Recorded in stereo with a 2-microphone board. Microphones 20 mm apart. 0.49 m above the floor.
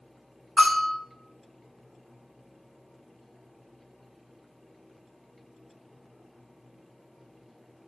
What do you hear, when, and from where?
0.6 s a bell: 40° left (ahead or behind), 2.5 m